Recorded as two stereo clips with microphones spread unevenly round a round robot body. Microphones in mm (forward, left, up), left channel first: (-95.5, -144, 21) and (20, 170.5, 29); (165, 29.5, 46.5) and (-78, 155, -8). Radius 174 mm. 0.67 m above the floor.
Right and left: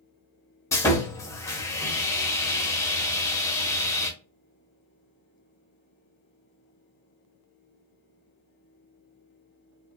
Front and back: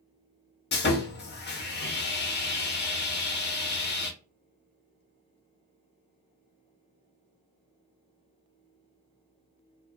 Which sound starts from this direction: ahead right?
Sawing, at 0.7 s.